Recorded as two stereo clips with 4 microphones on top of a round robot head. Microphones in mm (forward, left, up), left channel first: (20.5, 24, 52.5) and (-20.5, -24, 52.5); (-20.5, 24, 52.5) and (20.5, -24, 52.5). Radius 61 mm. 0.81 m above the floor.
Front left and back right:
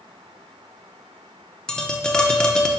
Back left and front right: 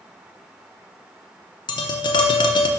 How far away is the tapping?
About 0.6 m.